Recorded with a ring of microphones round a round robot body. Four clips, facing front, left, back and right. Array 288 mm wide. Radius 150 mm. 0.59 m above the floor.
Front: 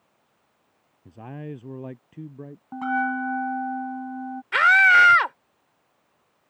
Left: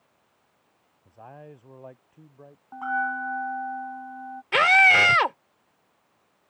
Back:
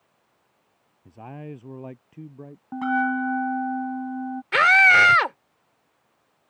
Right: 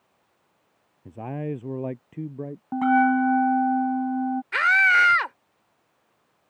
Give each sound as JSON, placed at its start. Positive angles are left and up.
{"t": 1.1, "sound": "a man speaking", "azimuth_deg": -80}
{"t": 2.7, "sound": "a bell", "azimuth_deg": -100}
{"t": 4.5, "sound": "a scream", "azimuth_deg": 130}